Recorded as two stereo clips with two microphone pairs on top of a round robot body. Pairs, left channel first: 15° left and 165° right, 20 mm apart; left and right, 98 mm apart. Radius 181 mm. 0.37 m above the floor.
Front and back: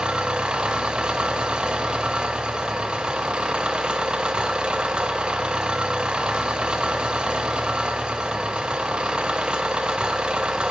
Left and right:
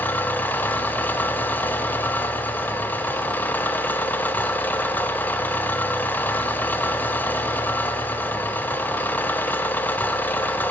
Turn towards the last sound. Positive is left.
turn(degrees=165)